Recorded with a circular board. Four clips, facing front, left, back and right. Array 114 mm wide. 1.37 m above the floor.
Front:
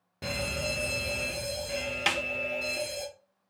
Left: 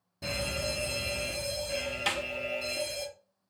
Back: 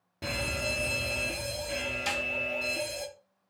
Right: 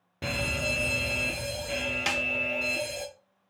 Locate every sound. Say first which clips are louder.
0.2 s a fire alarm: right 2 dB, front 1 dB; 90° right, 0.9 m
2.1 s a snare drum: even, front 4 dB; 20° right, 0.6 m